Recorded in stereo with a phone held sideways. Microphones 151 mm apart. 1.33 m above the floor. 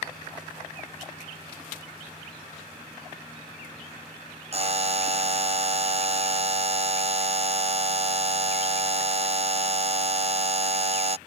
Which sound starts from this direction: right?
A buzzer, at 4.5 s.